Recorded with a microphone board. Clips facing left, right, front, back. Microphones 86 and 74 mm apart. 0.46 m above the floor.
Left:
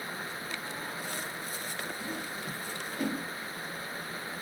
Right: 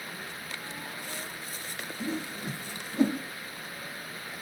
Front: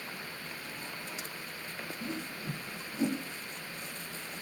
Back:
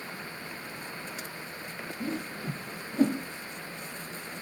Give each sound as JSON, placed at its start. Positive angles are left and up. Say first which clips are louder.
{"t": 2.0, "sound": "a whoosh", "louder": "right 3 dB, back 6 dB", "azimuth_deg": -150, "distance_m": 0.6}